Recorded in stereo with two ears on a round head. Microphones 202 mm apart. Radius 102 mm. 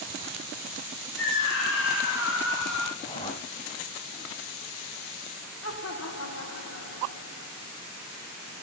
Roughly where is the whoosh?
Left.